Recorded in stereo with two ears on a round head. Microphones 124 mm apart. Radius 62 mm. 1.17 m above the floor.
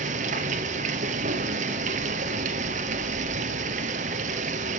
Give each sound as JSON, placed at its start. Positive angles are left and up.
{"t": 0.0, "sound": "running water", "side_deg": -55, "distance_m": 1.9}